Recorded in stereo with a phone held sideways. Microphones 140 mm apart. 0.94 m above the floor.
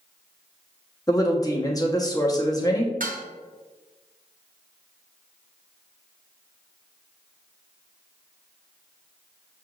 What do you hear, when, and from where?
1.1 s a woman speaking: 25° left (ahead or behind), 1.0 m
3.0 s dishes clattering: 75° right (ahead or behind), 0.8 m